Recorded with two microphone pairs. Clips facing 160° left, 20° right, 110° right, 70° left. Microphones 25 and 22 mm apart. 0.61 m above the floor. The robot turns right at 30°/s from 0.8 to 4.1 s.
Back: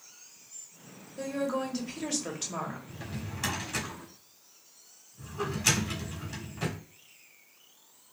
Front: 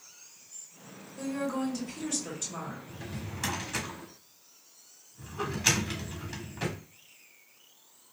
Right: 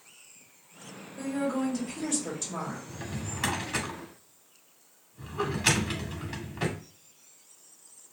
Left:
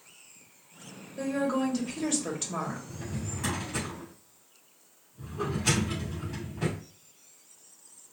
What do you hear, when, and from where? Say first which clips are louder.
1.2 s a woman speaking: back 1 dB, left 2 dB; 95° left, 1.4 m; by 2.8 s 145° left, 1.4 m
2.9 s a drawer: even, even; 130° right, 1.4 m; by 6.8 s 95° right, 1.4 m